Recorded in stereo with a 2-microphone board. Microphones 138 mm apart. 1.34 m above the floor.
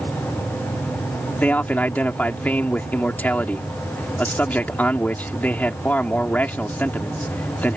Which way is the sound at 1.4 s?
10° left (ahead or behind).